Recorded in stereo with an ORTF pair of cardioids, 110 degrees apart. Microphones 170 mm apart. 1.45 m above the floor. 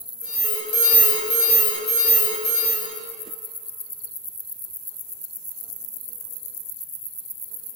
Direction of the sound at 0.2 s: 60° left.